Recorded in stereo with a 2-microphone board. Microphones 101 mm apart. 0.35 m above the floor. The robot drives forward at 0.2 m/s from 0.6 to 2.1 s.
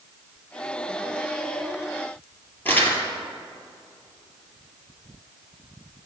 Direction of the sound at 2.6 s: 20° left (ahead or behind).